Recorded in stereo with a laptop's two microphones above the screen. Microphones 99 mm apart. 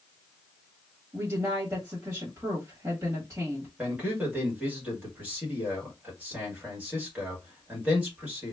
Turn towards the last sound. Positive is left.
turn(degrees=-15)  # may be behind; listen again after turning